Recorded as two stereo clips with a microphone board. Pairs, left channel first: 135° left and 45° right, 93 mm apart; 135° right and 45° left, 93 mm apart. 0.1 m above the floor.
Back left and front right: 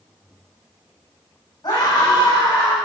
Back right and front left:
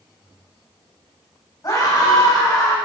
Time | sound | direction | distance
1.6 | a scream | straight behind | 5.5 m